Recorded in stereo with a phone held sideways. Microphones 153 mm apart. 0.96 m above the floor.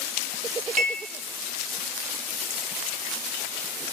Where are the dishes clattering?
50° right (ahead or behind), 0.8 m.